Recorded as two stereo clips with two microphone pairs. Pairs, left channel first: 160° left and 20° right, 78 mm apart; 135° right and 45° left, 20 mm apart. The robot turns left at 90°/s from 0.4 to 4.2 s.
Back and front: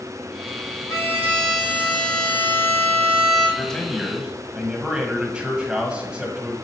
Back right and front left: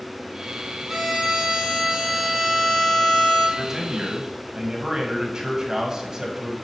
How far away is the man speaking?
About 1.2 m.